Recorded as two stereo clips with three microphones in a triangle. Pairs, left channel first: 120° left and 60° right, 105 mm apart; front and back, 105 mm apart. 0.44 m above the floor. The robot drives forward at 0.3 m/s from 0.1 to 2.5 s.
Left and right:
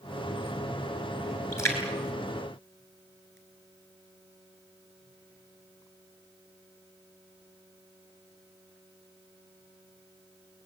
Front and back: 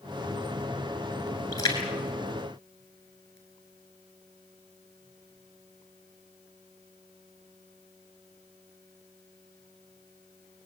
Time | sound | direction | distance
1.5 | a splash | 55° left | 7.5 m